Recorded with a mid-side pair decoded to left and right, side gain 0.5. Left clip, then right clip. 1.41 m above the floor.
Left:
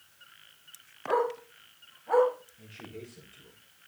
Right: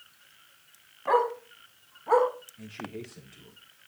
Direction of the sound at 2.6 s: 55° right.